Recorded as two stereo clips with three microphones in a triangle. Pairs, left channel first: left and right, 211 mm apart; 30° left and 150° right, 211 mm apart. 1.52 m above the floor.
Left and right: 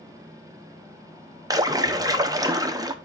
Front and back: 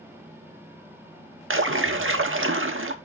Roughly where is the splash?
Behind.